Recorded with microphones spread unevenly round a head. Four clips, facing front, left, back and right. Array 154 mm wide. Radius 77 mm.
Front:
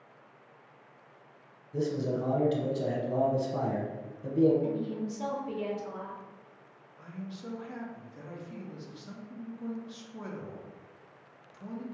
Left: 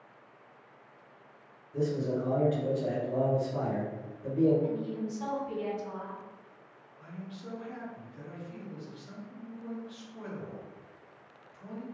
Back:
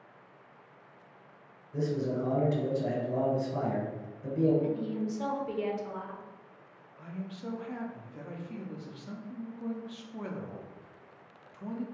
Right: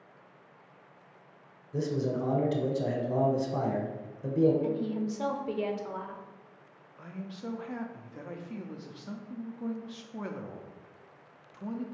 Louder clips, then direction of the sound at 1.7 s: Even, even; 75° right.